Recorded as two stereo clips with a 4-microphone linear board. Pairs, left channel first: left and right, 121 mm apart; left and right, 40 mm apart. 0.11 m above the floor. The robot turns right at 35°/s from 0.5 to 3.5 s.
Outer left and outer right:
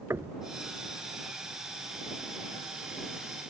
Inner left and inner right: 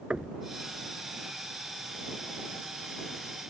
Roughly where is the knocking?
Right.